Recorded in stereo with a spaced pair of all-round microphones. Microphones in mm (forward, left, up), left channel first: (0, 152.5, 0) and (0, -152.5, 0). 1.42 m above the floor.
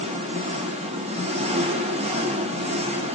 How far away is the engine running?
About 1.0 m.